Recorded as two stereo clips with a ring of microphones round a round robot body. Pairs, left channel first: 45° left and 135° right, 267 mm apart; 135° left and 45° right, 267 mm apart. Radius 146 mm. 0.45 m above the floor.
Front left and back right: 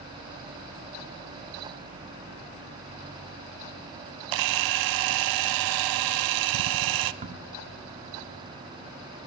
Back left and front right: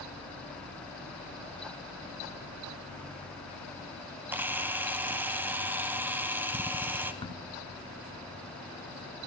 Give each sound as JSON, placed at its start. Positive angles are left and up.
{"t": 4.3, "sound": "a camera shutter", "azimuth_deg": -130, "distance_m": 0.6}
{"t": 7.2, "sound": "a crack", "azimuth_deg": -170, "distance_m": 1.2}